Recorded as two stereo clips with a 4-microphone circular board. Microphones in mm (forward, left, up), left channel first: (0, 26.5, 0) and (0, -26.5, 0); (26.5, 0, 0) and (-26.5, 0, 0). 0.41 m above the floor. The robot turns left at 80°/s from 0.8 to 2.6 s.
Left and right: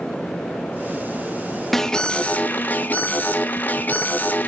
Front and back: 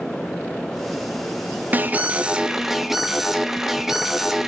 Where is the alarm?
170° left, 0.6 m; by 4.5 s 100° left, 0.6 m.